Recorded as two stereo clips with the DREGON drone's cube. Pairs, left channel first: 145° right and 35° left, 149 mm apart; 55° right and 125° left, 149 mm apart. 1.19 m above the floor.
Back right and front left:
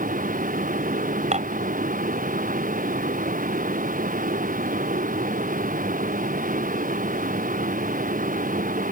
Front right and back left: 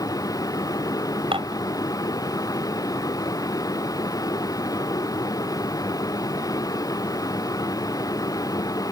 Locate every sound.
0.0 s a vehicle: 10° left
1.3 s dishes clattering: 70° left